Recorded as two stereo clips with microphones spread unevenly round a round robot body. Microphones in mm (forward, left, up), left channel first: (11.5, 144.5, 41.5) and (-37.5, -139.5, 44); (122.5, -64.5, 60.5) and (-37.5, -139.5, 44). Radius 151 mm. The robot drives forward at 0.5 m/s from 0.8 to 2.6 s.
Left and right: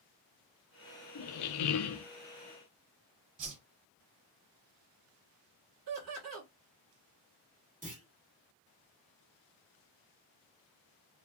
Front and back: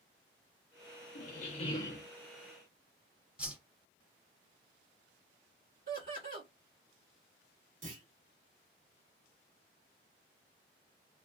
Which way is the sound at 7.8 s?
165° right.